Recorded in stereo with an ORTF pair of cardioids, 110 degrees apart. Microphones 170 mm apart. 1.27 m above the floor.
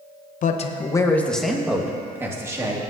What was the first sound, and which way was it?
A man speaking, 50° left.